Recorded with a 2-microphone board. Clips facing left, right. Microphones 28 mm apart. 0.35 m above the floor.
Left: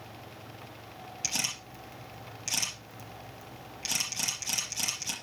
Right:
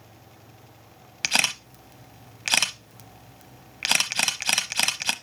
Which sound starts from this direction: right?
A camera shutter, at 1.2 s.